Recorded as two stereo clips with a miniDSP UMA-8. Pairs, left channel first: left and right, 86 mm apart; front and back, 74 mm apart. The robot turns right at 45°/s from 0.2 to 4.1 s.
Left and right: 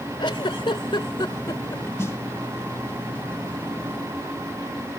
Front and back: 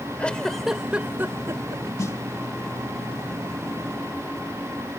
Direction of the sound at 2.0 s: 35° left.